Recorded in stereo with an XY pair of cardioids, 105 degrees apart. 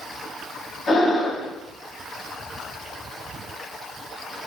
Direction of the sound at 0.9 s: 45° left.